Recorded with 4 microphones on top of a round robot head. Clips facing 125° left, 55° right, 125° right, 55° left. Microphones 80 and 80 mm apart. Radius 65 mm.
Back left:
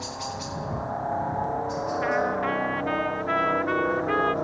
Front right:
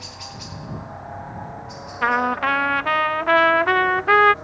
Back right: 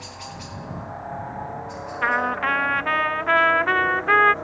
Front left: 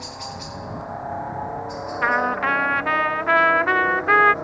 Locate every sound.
0.0 s a helicopter: 110° left; by 4.4 s 130° left
2.0 s a trumpet: 30° right